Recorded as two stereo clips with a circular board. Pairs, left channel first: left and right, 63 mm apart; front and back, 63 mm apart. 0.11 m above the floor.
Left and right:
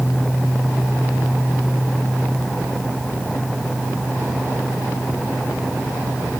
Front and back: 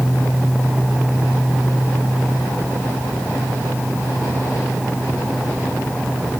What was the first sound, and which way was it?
Only background noise.